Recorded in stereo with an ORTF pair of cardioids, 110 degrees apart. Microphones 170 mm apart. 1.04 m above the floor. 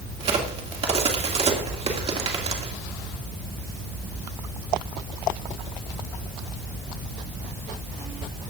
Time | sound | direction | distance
0.2 | a crack | 35° right | 2.5 m